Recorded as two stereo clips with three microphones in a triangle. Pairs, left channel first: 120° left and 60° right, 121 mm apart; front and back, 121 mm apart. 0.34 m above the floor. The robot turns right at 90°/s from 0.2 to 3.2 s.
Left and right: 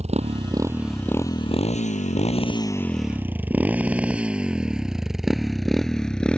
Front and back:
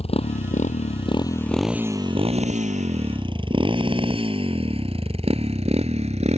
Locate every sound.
0.0 s a motorcycle: 35° right; by 6.4 s 160° right